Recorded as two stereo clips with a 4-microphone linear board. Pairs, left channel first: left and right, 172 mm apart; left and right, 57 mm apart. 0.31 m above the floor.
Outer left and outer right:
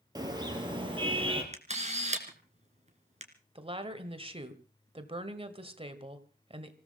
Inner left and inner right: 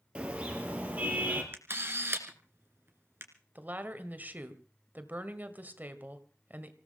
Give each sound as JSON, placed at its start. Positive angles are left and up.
{"t": 0.1, "sound": "a car horn", "side_deg": -25, "distance_m": 3.5}
{"t": 1.5, "sound": "a camera shutter", "side_deg": -40, "distance_m": 2.5}
{"t": 3.5, "sound": "a woman speaking", "side_deg": -35, "distance_m": 1.6}